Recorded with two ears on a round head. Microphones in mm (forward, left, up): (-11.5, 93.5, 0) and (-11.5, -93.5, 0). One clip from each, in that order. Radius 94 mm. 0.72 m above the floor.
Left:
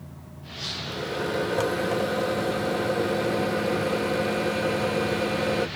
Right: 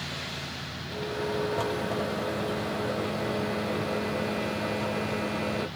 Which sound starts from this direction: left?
A microwave, at 0.9 s.